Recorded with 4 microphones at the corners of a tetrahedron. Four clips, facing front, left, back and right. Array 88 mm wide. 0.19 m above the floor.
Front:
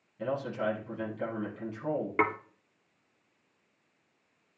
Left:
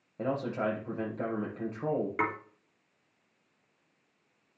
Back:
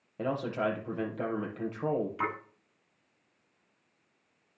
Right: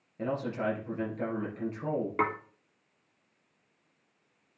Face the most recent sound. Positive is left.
turn(degrees=-10)